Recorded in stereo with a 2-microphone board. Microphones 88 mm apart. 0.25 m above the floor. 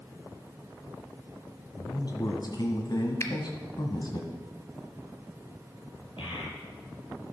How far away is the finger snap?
About 1.0 m.